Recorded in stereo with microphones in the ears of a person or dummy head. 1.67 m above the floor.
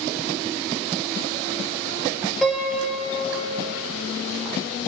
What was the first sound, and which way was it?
A piano, centre (ahead or behind).